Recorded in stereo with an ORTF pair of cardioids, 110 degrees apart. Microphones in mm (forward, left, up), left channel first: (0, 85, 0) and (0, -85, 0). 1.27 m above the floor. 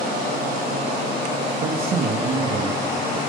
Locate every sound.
1.6 s a man speaking: 60° right, 1.6 m; by 3.2 s 20° right, 1.5 m